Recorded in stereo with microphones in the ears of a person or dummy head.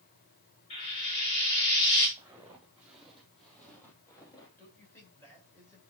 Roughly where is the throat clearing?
No throat clearing in this recording.